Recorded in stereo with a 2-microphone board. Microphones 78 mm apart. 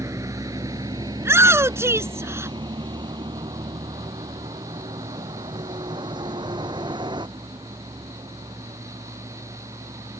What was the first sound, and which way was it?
A vehicle, 40° right (ahead or behind).